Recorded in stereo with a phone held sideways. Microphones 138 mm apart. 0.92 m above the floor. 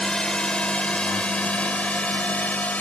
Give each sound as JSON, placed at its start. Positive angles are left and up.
{"t": 0.0, "sound": "a drone", "side_deg": 5}